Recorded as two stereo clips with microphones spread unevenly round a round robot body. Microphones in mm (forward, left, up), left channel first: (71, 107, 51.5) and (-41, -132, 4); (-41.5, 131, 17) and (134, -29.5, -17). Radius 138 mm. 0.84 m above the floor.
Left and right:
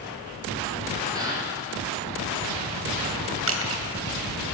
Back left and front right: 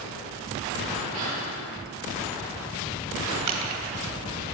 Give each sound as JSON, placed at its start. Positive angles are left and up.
{"t": 1.1, "sound": "a gasp", "azimuth_deg": -40, "distance_m": 7.5}
{"t": 3.5, "sound": "crushing", "azimuth_deg": -75, "distance_m": 3.0}